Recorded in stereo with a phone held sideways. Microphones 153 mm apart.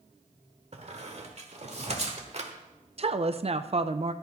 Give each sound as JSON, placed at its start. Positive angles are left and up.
{"t": 0.7, "sound": "a squeak", "side_deg": -50, "distance_m": 1.2}
{"t": 3.0, "sound": "a woman speaking", "side_deg": -45, "distance_m": 0.6}